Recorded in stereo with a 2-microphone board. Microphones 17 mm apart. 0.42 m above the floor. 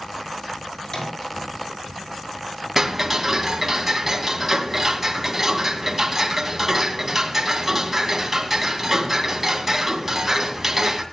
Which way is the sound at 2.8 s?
15° right (ahead or behind).